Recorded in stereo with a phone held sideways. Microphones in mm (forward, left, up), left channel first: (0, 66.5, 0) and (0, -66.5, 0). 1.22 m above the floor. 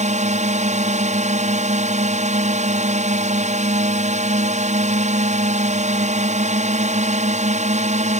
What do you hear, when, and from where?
0.0 s a drone: 60° right (ahead or behind)